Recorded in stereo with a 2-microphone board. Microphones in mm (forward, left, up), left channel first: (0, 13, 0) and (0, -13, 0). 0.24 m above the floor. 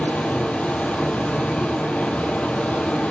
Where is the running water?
80° left, 2.5 m.